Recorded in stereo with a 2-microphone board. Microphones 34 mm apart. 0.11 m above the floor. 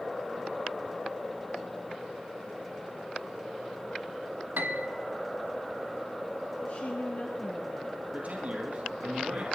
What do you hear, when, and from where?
4.6 s a piano: 75° right (ahead or behind), 0.7 m
6.6 s a woman speaking: 50° left (ahead or behind), 1.5 m
8.1 s a man speaking: 50° right (ahead or behind), 2.5 m